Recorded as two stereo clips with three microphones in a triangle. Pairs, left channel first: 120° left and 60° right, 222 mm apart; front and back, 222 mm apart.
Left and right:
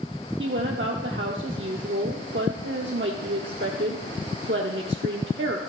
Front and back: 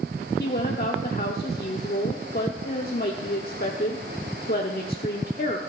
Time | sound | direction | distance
0.4 | a woman speaking | 40° right | 1.0 m